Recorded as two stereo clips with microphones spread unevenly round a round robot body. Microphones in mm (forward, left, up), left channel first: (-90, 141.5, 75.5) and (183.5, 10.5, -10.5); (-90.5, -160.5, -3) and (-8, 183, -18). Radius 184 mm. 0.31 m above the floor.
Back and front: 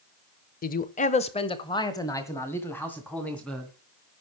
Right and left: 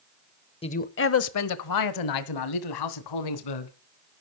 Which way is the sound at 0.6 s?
150° right.